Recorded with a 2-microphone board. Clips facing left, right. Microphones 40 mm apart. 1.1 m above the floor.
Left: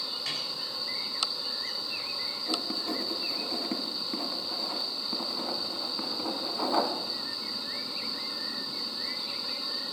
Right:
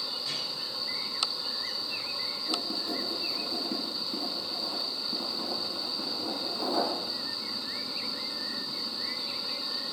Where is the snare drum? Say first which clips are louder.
Left 2 dB; 70° left (ahead or behind), 7.5 m.